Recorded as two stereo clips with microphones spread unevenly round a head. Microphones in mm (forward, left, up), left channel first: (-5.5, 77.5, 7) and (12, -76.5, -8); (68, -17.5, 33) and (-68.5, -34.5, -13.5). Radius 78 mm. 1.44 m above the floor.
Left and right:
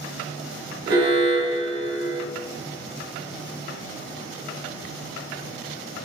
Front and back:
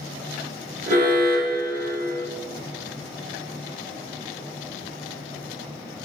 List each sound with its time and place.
0.9 s an alarm: 150° right, 1.6 m